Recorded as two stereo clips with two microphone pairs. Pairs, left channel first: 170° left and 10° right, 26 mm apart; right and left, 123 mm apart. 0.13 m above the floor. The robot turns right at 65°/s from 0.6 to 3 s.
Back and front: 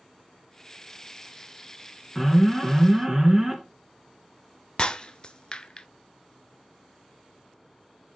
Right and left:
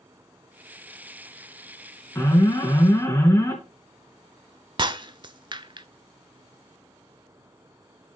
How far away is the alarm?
About 2.5 m.